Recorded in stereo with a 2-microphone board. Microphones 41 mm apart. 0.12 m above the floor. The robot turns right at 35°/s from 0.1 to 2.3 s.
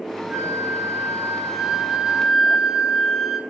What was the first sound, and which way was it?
A flute, 85° right.